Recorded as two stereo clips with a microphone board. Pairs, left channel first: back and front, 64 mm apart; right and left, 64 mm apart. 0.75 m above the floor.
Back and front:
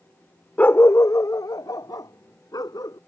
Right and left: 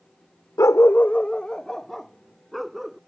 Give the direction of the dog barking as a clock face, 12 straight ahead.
4 o'clock.